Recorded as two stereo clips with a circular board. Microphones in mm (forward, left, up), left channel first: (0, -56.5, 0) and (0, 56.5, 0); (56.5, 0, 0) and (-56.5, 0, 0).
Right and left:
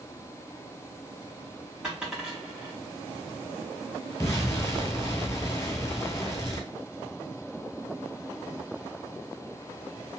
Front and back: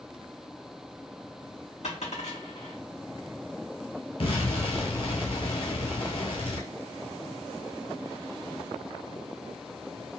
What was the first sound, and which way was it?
A dropped coin, 5° left.